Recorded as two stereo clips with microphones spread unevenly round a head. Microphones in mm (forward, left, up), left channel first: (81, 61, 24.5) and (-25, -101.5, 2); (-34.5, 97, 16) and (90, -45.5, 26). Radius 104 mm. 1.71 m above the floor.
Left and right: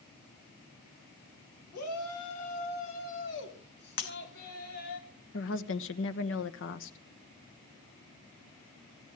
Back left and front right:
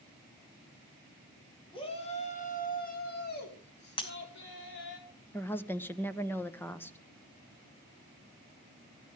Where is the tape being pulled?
I don't hear tape being pulled.